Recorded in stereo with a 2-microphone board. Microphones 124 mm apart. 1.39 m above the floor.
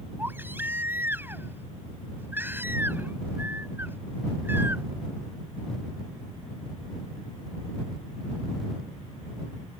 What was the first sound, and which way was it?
A baby crying, 15° right (ahead or behind).